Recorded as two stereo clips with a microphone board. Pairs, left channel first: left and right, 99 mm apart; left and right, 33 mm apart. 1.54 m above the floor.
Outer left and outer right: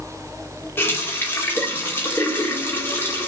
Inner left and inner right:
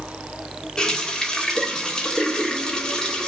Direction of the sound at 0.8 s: 20° left (ahead or behind).